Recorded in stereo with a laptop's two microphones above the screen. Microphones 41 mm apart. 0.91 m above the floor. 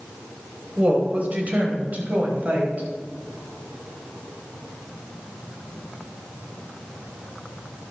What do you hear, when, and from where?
0.8 s a woman speaking: 40° right (ahead or behind), 3.5 m; by 2.9 s 50° right (ahead or behind), 5 m